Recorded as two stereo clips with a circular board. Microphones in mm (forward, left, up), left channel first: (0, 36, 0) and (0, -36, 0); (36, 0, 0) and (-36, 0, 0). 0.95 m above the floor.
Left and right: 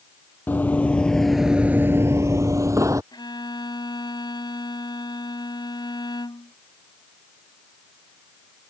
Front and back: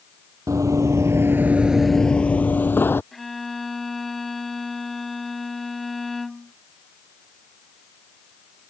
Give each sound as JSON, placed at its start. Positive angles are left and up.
{"t": 0.5, "sound": "running footsteps", "azimuth_deg": 150}
{"t": 3.1, "sound": "a violin", "azimuth_deg": 90}